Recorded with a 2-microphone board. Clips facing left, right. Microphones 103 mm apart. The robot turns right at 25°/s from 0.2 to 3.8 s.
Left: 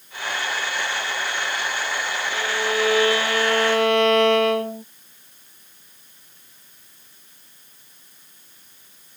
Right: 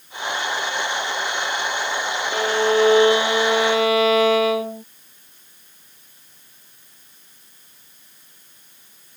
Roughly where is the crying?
No crying in this recording.